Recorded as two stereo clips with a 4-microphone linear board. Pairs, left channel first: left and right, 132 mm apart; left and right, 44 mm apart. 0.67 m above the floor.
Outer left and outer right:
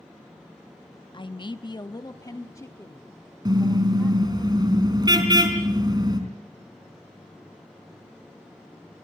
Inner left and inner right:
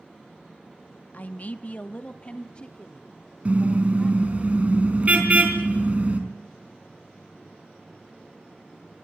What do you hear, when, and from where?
1.1 s a man speaking: 40° left (ahead or behind), 0.7 m; by 4.5 s 15° left (ahead or behind), 2 m
3.5 s a car horn: 30° right (ahead or behind), 3.5 m